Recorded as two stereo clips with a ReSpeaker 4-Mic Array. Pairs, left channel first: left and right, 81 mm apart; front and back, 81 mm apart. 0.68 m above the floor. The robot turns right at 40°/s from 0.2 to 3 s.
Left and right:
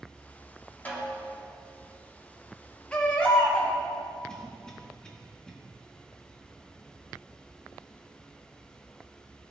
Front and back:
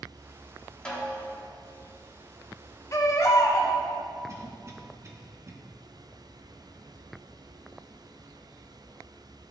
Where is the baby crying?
20° left, 0.8 m.